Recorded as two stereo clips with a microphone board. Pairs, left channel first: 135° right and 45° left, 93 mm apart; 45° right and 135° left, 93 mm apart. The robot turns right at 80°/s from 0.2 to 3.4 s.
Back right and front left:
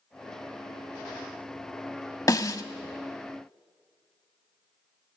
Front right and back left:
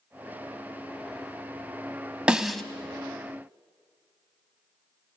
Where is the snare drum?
155° right, 0.9 m; by 2.6 s 125° right, 0.9 m.